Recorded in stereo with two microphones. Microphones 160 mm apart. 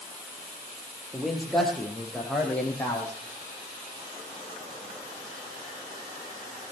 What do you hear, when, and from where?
1.1 s a man speaking: 5° right (ahead or behind), 4 m; by 3.1 s 15° left (ahead or behind), 5.5 m